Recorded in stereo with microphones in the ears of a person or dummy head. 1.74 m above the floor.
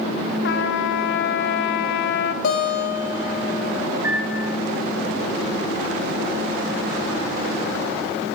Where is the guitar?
55° left (ahead or behind), 1.9 m.